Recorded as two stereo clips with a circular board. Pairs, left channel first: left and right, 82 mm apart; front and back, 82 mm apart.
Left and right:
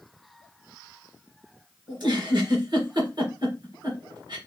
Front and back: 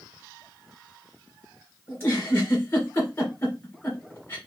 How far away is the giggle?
About 3 m.